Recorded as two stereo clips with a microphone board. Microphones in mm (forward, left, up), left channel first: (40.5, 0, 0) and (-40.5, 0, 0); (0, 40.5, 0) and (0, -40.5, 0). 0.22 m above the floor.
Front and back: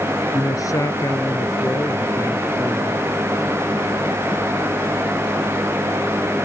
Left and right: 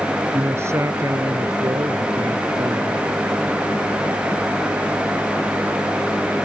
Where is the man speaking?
35° right; by 3.0 s 65° right.